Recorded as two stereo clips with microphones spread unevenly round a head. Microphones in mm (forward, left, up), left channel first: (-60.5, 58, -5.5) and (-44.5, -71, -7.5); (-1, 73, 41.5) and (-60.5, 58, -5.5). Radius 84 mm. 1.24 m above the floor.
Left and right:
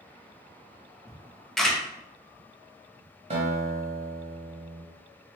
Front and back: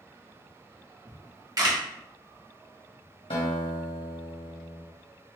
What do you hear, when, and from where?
1.1 s a camera shutter: 175° right, 1.2 m
3.3 s a guitar: 30° right, 1.1 m